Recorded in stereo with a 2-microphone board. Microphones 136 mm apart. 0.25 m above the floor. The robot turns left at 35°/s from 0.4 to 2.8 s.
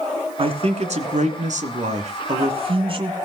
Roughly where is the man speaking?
Ahead right.